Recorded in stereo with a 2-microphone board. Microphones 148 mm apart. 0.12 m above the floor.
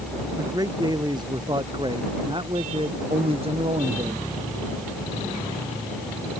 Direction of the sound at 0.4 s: 25° right (ahead or behind).